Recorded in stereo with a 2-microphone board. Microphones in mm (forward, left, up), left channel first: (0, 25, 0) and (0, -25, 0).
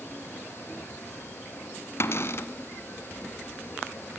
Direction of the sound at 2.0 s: 60° left (ahead or behind).